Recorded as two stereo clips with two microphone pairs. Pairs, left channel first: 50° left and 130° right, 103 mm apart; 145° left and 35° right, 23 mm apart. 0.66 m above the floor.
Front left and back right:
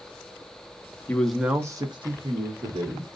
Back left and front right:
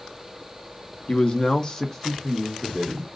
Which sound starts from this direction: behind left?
A man speaking, at 1.1 s.